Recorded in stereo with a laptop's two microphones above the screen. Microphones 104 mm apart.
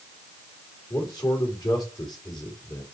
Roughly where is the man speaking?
Left.